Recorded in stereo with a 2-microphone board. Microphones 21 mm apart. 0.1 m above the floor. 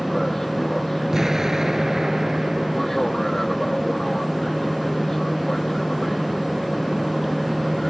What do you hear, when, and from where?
0.0 s an aircraft: 10° left (ahead or behind)
1.1 s an explosion: 20° right (ahead or behind)